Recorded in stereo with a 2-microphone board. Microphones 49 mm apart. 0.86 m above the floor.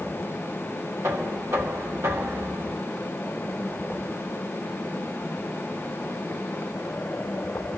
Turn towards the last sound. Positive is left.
turn(degrees=-70)  # may be behind; listen again after turning